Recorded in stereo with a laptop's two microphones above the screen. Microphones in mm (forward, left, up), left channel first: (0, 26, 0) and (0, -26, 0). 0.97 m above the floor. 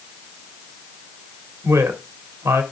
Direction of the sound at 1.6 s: 80° right.